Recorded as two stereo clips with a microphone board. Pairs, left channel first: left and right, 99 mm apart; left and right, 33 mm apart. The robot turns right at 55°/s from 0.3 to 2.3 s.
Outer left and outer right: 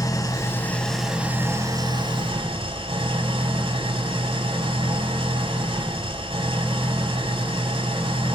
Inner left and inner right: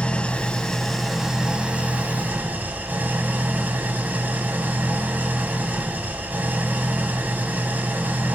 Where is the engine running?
140° left, 2.5 m; by 8.3 s 110° right, 2.5 m.